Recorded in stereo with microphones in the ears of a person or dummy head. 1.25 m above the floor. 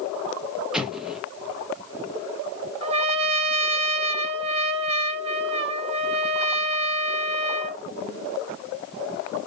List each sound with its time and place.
0.7 s an explosion: 5° right (ahead or behind), 0.6 m
2.8 s a trumpet: 35° right (ahead or behind), 0.5 m